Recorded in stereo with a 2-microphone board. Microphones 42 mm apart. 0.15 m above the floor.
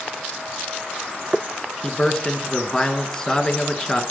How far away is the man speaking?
About 1.5 m.